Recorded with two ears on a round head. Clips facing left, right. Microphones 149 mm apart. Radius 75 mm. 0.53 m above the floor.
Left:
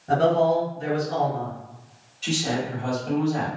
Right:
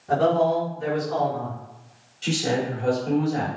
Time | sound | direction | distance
0.1 | a man speaking | 40° left (ahead or behind) | 1.7 m
2.2 | a man speaking | 30° right (ahead or behind) | 1.2 m